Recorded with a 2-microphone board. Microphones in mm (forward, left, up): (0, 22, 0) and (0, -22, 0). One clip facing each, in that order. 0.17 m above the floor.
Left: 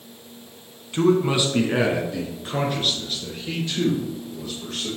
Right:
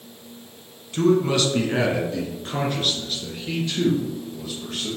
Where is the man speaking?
20° left (ahead or behind), 1.3 m; by 4.9 s 5° right (ahead or behind), 3.5 m.